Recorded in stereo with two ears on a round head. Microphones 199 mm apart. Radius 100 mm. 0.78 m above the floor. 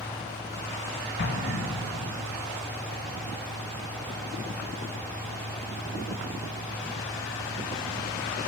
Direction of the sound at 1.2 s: 50° left (ahead or behind).